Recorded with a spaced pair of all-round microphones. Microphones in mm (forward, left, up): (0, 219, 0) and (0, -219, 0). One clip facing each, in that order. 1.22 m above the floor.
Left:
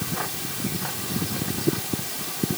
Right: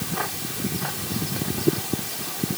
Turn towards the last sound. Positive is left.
No sound to turn to.